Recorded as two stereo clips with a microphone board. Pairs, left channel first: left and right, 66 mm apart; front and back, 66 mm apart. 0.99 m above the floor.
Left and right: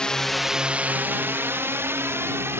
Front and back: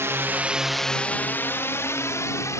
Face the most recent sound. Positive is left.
turn(degrees=-40)